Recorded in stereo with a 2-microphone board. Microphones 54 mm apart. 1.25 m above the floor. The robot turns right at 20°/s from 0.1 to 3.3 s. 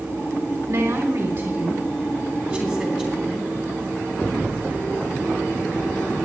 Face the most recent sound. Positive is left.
turn(degrees=-15)